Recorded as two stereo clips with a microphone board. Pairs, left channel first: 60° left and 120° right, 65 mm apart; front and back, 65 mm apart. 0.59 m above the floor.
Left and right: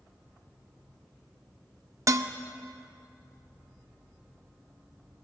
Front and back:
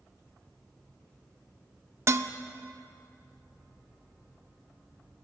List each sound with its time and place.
2.1 s dishes clattering: 145° right, 0.6 m